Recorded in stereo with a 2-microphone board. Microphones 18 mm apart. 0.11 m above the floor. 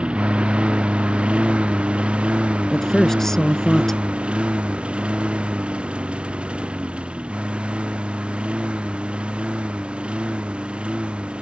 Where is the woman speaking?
20° left (ahead or behind).